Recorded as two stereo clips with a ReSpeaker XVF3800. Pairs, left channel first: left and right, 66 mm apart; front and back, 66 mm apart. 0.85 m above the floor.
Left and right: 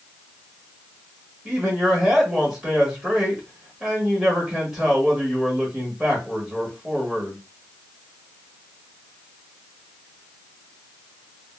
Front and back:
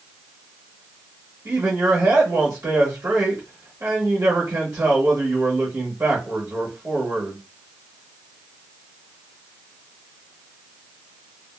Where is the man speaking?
155° right, 1.1 m.